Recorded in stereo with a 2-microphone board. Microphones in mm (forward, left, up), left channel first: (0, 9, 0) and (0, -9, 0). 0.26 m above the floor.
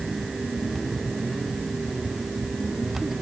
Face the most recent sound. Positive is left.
No sound to turn to.